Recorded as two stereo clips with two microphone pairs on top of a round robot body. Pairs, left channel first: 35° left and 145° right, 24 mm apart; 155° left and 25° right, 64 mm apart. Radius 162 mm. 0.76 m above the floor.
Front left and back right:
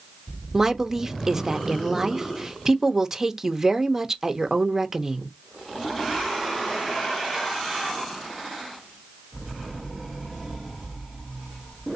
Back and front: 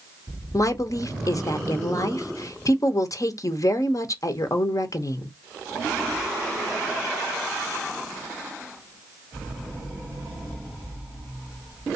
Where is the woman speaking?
145° left, 0.8 m.